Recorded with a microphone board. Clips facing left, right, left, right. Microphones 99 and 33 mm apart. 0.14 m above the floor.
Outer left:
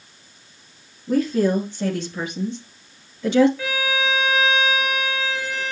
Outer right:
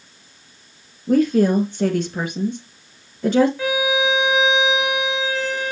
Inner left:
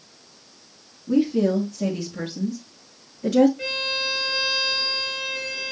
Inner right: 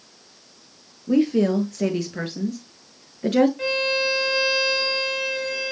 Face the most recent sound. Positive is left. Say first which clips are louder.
# outer right 4 dB, inner right 4 dB
turn(degrees=-20)  # may be behind; listen again after turning